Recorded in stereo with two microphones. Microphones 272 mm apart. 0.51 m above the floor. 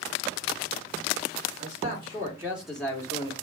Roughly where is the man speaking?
Right.